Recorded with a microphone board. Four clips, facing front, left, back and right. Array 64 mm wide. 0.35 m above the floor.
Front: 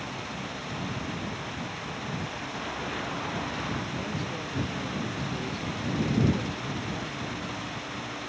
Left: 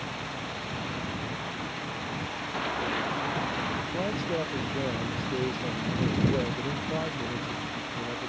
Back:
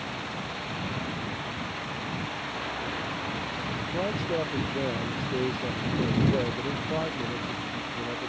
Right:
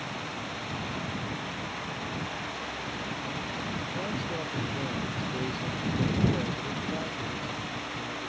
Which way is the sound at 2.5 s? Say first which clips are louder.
Left 6 dB, front 1 dB; 95° left.